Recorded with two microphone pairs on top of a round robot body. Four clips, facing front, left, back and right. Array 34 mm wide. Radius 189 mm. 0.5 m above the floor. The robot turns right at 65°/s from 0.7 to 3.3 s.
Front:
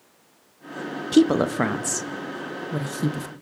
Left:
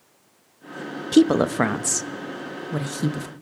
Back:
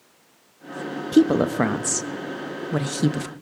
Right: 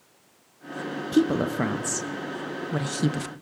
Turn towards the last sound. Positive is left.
turn(degrees=-145)